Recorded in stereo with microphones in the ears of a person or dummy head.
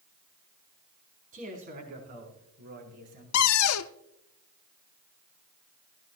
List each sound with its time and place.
1.3 s a man speaking: 40° right (ahead or behind), 4 m; by 3.2 s 55° right (ahead or behind), 5.5 m
3.3 s a cupboard door: 85° left, 0.6 m